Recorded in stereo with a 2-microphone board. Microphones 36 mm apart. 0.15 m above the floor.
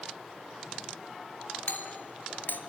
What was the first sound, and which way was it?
A doorbell, 60° left (ahead or behind).